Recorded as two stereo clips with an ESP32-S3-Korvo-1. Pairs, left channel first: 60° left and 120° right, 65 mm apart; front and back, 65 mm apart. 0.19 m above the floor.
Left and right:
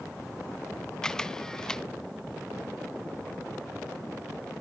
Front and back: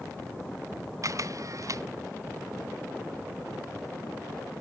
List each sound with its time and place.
1.0 s a camera shutter: 140° left